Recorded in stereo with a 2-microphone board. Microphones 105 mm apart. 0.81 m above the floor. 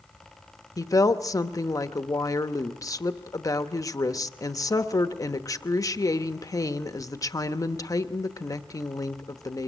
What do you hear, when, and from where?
0.8 s a woman speaking: 35° left (ahead or behind), 0.9 m